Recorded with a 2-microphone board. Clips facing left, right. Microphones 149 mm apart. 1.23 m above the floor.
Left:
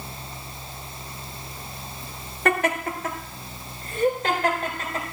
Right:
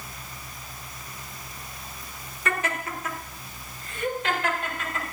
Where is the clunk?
No clunk in this recording.